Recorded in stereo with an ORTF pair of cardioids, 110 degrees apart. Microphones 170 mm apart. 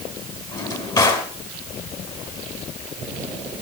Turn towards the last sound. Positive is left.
turn(degrees=25)